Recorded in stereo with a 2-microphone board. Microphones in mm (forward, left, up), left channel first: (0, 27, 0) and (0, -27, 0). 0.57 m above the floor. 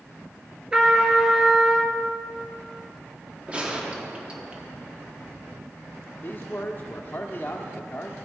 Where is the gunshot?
20° right (ahead or behind), 1.1 m.